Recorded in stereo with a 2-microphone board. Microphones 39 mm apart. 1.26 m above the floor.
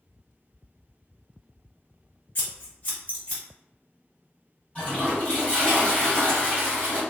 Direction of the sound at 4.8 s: 30° left (ahead or behind).